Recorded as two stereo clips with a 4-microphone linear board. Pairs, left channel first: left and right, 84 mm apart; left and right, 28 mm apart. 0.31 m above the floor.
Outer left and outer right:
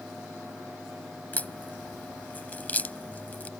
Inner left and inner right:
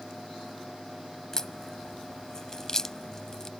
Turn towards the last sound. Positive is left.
turn(degrees=20)  # may be behind; listen again after turning